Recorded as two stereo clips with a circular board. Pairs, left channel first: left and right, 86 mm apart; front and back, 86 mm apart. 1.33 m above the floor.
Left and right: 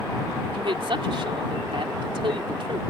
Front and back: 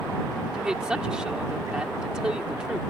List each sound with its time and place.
0.5 s a woman speaking: 100° right